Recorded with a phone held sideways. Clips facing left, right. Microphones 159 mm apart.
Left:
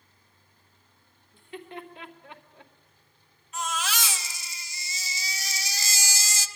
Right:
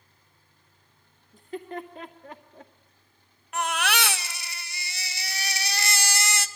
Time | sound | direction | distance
1.3 | laughter | 45° right (ahead or behind) | 2 m
3.5 | a baby crying | 65° right (ahead or behind) | 0.7 m